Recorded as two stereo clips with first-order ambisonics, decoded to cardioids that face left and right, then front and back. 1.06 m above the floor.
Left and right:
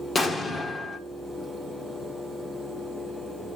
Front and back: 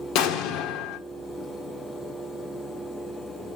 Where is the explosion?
20° left, 1.0 m.